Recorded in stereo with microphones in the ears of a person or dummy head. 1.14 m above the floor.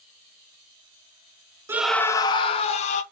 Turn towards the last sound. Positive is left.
turn(degrees=40)  # may be behind; listen again after turning